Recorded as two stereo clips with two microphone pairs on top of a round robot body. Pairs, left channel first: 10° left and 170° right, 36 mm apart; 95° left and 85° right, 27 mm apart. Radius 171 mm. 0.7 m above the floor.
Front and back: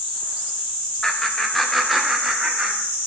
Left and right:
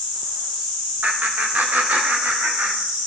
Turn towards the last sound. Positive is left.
turn(degrees=-90)